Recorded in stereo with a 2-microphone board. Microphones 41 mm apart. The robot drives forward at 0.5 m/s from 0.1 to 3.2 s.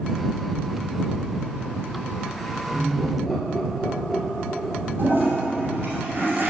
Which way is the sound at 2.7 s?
Centre (ahead or behind).